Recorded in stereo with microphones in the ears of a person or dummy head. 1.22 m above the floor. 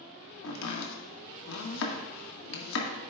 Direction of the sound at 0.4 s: 75° left (ahead or behind).